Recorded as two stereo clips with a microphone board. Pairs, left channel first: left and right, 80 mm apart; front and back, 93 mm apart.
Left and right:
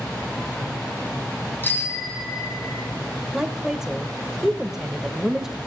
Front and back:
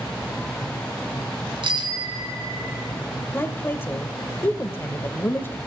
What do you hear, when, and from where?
1.6 s a bicycle bell: 155° left, 2 m; by 2.9 s 125° left, 2.5 m
3.3 s a woman speaking: 15° right, 0.9 m